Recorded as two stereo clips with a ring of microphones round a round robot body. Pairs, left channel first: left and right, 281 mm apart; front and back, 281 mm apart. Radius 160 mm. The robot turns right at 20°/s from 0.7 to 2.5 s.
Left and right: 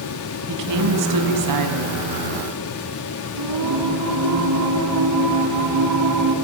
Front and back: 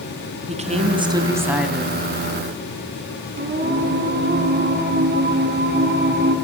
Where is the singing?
125° right, 3 m.